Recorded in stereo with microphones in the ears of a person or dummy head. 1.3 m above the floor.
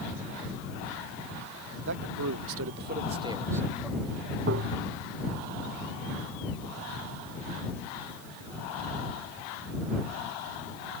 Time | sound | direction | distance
1.9 | a man speaking | 60° right (ahead or behind) | ?
4.5 | tapping | 55° right (ahead or behind) | ?